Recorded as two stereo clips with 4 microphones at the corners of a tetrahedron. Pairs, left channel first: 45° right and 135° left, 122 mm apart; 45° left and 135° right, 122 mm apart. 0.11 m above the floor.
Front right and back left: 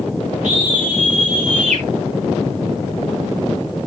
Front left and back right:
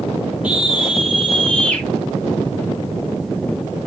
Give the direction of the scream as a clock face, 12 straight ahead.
7 o'clock.